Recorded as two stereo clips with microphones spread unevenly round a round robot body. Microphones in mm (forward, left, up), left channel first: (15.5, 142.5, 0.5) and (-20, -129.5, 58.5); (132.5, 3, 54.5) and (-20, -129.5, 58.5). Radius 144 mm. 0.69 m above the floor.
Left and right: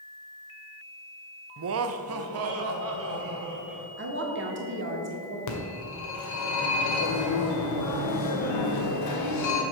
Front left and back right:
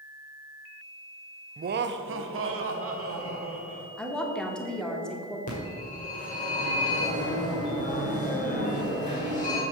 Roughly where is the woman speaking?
Ahead right.